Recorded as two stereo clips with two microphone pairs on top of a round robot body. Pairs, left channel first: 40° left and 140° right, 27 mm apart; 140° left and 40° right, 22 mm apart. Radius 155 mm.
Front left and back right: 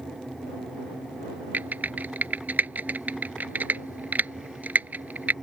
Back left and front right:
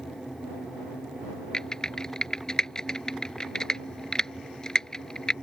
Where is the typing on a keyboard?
150° right.